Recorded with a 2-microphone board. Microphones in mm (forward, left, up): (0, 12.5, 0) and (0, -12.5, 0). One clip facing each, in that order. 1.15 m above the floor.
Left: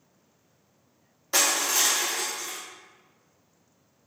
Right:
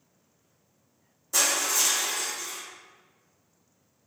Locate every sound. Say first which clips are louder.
1.3 s crushing: left 2 dB; 45° left (ahead or behind), 0.7 m